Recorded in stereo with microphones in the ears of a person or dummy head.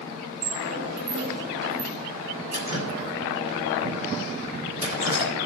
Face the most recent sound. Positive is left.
turn(degrees=-50)  # may be behind; listen again after turning